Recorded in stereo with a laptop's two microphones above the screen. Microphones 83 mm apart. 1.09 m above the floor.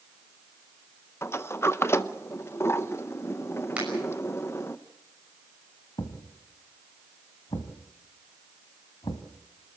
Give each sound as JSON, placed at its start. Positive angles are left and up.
{"t": 1.2, "sound": "a sliding door", "side_deg": 30, "distance_m": 0.5}
{"t": 3.8, "sound": "a finger snap", "side_deg": -15, "distance_m": 6.0}
{"t": 6.0, "sound": "a thud", "side_deg": 65, "distance_m": 2.0}